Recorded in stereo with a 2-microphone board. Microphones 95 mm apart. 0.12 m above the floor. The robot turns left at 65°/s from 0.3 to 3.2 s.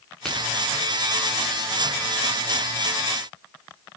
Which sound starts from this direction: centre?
A crack, at 0.2 s.